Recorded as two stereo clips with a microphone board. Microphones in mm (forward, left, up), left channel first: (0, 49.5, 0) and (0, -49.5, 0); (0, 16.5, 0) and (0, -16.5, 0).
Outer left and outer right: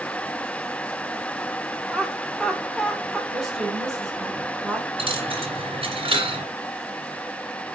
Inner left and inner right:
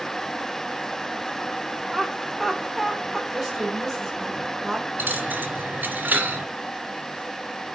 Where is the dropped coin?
65° right (ahead or behind), 2.0 m.